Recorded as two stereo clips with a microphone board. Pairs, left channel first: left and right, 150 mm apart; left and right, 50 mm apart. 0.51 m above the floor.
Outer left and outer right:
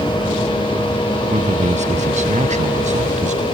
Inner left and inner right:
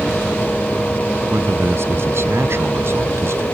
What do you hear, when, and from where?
1.3 s a man speaking: 55° right (ahead or behind)